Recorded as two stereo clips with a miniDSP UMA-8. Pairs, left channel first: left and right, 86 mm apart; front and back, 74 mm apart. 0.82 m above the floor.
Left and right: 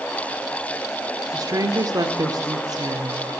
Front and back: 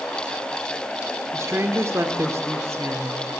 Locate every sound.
1.3 s a woman speaking: 130° right, 1.8 m